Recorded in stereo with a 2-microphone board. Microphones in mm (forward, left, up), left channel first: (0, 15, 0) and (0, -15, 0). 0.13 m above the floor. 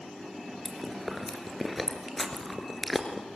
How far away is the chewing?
About 2 m.